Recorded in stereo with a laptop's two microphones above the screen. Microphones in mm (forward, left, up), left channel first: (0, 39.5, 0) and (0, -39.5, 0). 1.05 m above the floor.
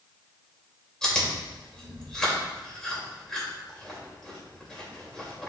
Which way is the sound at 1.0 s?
10° left (ahead or behind).